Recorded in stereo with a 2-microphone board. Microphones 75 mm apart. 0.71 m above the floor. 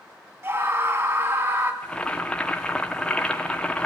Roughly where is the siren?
No siren in this recording.